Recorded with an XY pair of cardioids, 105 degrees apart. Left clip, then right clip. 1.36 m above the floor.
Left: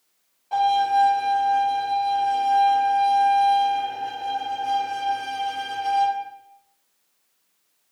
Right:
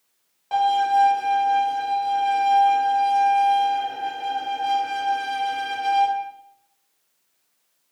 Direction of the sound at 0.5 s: 65° right.